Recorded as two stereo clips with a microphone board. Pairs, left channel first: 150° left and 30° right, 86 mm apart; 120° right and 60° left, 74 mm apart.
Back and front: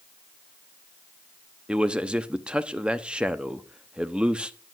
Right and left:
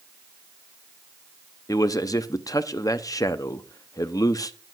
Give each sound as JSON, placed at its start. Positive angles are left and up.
{"t": 1.7, "sound": "a man speaking", "azimuth_deg": -105, "distance_m": 0.8}